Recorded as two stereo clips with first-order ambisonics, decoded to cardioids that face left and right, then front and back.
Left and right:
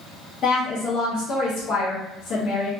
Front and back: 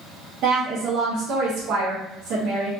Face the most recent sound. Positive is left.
turn(degrees=140)